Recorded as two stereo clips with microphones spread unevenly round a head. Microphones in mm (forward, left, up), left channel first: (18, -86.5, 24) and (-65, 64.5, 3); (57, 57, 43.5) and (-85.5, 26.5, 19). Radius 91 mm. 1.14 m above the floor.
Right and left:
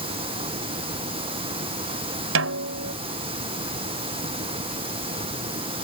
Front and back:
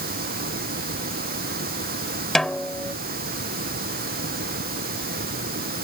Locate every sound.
0.0 s running water: straight behind
2.4 s a snare drum: 100° left